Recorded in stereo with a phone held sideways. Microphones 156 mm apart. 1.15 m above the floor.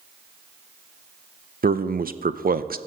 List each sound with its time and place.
1.6 s a man speaking: 70° right (ahead or behind), 0.5 m